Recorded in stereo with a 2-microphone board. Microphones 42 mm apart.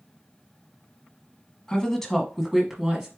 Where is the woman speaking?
15° left (ahead or behind), 1.1 m; by 3.1 s 15° right (ahead or behind), 1.1 m.